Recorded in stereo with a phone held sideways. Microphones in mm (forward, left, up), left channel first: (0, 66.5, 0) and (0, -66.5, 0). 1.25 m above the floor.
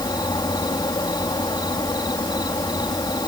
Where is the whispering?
I don't hear whispering.